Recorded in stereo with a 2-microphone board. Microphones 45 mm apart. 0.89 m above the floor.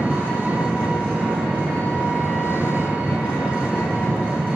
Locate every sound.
0.0 s an engine running: 35° right (ahead or behind), 1.1 m